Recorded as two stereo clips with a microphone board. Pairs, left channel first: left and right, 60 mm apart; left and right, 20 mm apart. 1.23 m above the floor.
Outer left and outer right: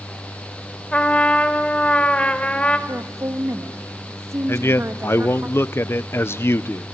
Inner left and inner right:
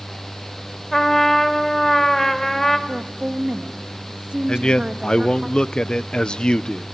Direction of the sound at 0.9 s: 20° left (ahead or behind).